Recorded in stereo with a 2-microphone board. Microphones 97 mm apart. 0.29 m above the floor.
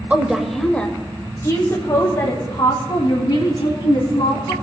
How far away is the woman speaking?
About 0.8 m.